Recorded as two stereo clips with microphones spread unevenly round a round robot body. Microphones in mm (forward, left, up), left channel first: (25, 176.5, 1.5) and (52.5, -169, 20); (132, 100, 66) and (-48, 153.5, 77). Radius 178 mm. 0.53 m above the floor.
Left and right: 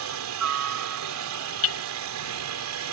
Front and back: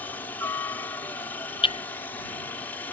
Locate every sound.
0.0 s a helicopter: 90° right
1.6 s hammering: 45° left